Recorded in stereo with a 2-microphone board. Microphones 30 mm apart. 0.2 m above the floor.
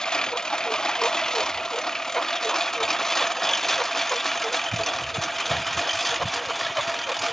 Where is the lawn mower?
25° left (ahead or behind); by 7.3 s 5° left (ahead or behind).